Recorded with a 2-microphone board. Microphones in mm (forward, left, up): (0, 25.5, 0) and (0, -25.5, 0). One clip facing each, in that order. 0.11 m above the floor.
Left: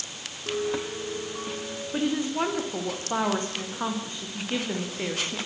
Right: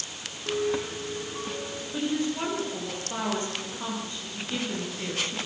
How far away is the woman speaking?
About 8 m.